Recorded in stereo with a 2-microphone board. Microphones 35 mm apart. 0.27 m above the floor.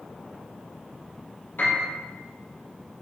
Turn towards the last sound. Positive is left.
turn(degrees=80)